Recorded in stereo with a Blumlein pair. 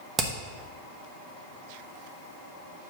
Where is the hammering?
20° right, 1.1 m.